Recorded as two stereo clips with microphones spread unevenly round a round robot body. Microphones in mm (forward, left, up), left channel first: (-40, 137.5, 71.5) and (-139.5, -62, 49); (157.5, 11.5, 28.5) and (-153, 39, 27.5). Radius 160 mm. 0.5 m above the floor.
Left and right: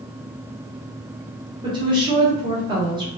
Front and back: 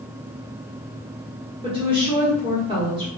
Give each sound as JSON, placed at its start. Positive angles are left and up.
{"t": 1.6, "sound": "a woman speaking", "azimuth_deg": -135, "distance_m": 1.2}